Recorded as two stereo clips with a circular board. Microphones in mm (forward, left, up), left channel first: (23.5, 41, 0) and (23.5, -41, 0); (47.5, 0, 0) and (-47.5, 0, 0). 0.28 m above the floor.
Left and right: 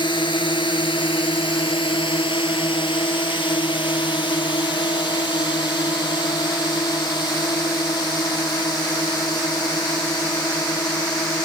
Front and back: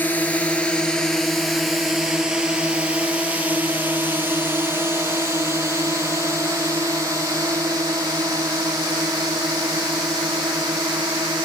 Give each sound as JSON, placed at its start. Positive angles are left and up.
{"t": 0.0, "sound": "a drone", "azimuth_deg": 70}